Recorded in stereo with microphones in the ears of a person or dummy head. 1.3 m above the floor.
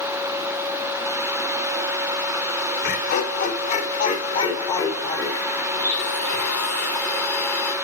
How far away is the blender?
About 5 m.